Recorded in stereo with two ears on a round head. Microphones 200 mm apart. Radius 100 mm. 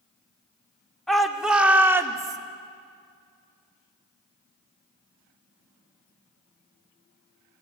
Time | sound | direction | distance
1.1 | a shout | centre (ahead or behind) | 2.0 m